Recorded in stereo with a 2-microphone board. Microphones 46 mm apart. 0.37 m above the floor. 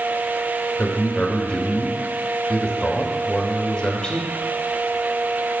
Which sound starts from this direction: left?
A man speaking, at 0.8 s.